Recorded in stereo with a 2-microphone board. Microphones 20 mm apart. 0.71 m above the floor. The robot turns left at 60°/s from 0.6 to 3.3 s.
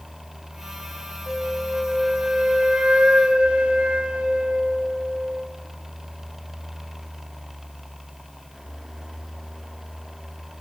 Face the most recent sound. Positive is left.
turn(degrees=-105)